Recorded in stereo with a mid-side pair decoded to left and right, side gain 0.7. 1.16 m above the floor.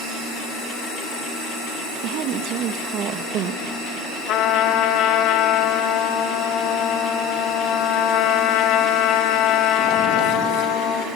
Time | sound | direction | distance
2.0 | a woman speaking | 55° right | 1.4 m
4.3 | a trumpet | 55° left | 1.5 m